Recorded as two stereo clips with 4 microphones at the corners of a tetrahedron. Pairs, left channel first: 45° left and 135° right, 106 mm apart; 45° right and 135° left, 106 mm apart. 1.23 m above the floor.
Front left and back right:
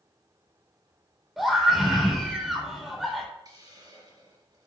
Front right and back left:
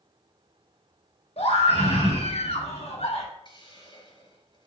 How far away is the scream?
About 4 m.